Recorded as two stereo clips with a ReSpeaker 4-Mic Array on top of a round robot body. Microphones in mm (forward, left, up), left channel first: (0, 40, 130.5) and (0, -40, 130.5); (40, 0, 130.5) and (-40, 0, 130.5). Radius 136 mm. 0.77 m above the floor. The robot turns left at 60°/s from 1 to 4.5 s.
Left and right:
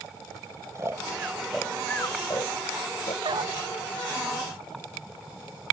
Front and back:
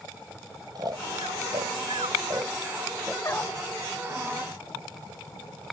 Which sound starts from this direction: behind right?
Snoring, at 0.8 s.